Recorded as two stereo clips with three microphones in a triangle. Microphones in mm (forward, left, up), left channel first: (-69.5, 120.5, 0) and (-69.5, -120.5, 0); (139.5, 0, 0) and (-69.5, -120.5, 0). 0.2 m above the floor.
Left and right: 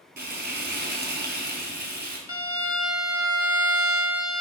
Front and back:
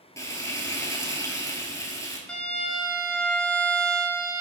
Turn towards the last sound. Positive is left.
turn(degrees=115)